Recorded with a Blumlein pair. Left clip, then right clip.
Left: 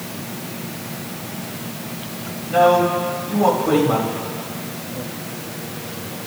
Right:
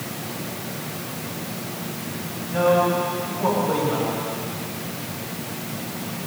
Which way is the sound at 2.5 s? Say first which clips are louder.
Left 4 dB; 35° left.